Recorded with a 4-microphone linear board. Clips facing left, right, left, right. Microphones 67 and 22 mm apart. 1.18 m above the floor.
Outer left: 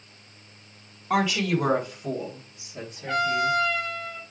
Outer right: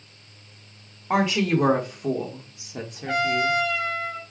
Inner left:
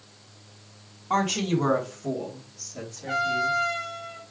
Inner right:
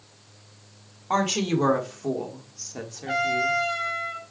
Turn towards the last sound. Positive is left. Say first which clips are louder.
# outer right 1 dB, inner right 1 dB
turn(degrees=-75)  # may be behind; listen again after turning